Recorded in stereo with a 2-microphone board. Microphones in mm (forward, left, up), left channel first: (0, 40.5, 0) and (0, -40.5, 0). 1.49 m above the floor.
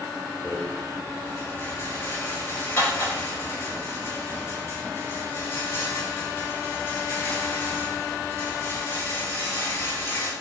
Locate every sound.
0.4 s a rattle: 30° left (ahead or behind), 3.5 m